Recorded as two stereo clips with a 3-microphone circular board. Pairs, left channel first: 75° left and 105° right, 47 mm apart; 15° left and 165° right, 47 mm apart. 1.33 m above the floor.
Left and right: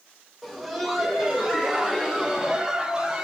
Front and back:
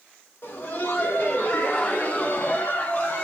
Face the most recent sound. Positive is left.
turn(degrees=-25)